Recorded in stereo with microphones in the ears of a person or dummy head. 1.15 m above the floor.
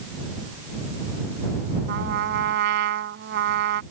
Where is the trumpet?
65° right (ahead or behind).